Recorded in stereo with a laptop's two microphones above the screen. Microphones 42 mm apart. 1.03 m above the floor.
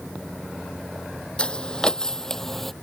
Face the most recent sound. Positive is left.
turn(degrees=5)  # may be behind; listen again after turning